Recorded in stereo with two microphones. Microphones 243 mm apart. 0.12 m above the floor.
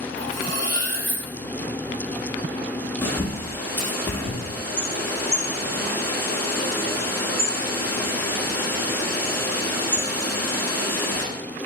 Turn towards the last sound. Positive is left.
turn(degrees=10)  # may be behind; listen again after turning